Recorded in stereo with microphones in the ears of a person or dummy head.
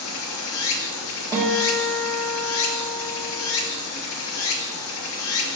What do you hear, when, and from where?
0.0 s running water: 80° left, 0.8 m
1.3 s a guitar: 20° right (ahead or behind), 1.7 m